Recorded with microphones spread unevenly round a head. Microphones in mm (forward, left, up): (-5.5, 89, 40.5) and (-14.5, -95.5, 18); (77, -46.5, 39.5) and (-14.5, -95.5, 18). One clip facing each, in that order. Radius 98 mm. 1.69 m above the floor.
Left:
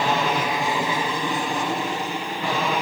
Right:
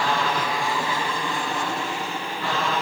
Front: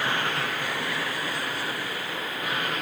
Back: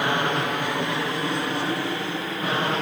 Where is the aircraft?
160° left; by 2.8 s 165° left.